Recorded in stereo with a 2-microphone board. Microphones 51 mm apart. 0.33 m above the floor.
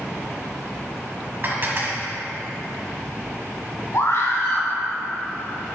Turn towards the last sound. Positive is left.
turn(degrees=60)  # may be behind; listen again after turning